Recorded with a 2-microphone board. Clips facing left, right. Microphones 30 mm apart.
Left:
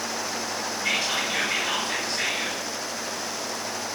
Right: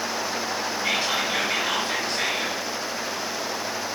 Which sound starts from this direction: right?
Whispering, at 0.8 s.